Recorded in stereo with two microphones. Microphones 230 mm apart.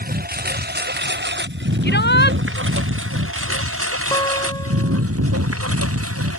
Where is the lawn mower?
40° right (ahead or behind); by 6.4 s 85° right.